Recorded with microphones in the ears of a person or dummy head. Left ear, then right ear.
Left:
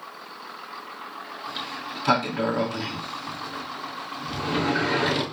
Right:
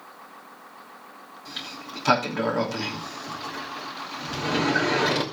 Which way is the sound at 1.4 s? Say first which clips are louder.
Left 2 dB; 15° right (ahead or behind).